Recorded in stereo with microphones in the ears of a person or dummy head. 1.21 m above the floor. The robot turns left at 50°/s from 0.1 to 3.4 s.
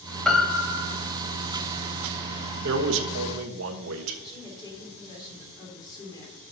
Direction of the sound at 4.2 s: 25° left (ahead or behind).